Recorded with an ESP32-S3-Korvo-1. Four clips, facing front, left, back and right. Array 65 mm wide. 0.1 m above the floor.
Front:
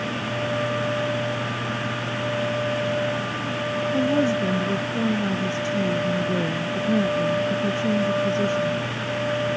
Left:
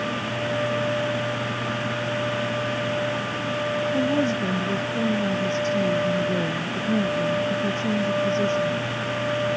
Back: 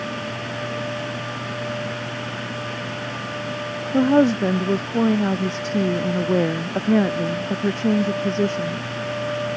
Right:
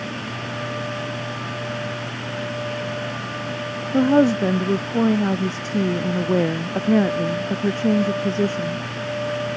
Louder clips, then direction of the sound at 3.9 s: Right 10 dB, back 6 dB; 135° right.